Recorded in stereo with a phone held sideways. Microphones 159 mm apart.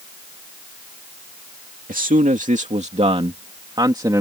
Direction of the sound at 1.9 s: 60° right (ahead or behind).